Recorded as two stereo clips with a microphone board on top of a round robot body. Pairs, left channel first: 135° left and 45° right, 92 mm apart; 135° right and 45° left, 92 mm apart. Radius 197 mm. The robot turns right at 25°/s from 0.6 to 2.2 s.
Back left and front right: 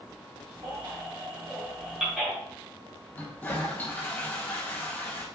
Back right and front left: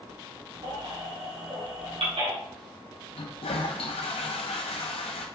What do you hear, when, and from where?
0.6 s a baby crying: 5° left, 5 m; by 2.3 s 40° left, 5 m
3.1 s a toilet flushing: 155° right, 1.0 m